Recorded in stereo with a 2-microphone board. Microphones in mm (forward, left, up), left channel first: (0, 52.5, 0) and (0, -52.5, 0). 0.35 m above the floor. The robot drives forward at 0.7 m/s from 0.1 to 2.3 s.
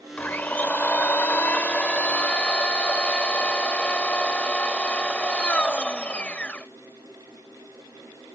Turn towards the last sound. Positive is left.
turn(degrees=15)  # may be behind; listen again after turning